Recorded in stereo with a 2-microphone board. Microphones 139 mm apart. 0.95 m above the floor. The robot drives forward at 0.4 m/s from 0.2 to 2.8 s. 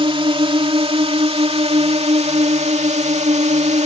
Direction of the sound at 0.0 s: 40° right (ahead or behind).